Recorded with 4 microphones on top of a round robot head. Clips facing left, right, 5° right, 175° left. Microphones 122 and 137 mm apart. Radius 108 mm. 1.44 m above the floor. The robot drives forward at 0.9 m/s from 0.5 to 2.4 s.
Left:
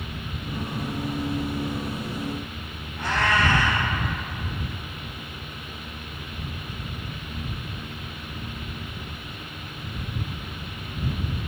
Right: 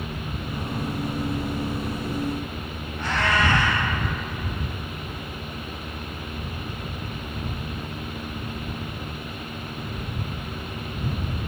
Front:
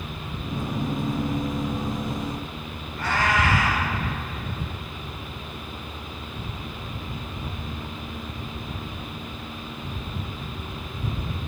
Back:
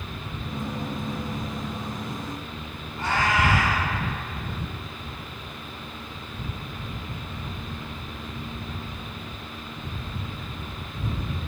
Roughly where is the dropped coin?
No dropped coin in this recording.